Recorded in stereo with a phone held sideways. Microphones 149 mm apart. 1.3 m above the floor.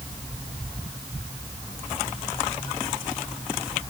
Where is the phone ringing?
No phone ringing in this recording.